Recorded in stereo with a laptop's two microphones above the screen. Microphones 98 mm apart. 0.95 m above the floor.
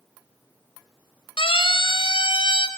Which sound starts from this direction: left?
A siren, at 1.4 s.